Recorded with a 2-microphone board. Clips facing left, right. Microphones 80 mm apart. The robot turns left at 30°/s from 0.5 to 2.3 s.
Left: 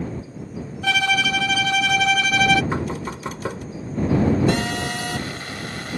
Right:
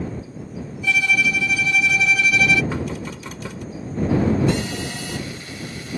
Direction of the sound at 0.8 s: 95° left.